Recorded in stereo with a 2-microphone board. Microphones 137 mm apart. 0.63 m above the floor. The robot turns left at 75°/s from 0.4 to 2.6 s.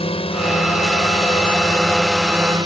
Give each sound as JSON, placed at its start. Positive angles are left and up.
{"t": 0.0, "sound": "a drone", "azimuth_deg": 130}